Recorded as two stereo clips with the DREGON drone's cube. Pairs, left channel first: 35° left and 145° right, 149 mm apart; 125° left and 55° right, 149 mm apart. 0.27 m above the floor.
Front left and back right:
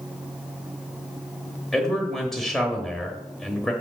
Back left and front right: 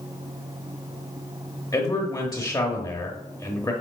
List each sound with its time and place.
1.7 s a man speaking: 120° left, 1.0 m